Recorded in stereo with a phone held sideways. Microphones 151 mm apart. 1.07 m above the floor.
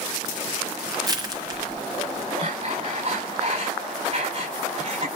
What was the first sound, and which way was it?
Crushing, 25° right (ahead or behind).